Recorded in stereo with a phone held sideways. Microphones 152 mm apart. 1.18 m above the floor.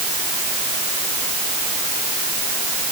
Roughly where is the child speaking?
I don't hear a child speaking.